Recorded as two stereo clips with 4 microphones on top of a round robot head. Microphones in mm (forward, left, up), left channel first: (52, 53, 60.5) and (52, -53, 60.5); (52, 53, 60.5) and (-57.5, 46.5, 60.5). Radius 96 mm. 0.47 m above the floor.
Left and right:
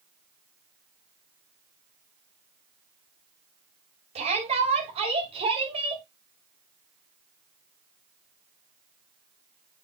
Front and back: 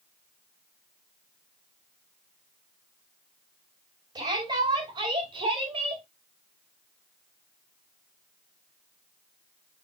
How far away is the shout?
About 4 m.